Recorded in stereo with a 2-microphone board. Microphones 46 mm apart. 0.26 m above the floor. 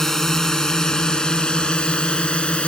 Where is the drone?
10° left (ahead or behind); by 2.7 s 20° left (ahead or behind).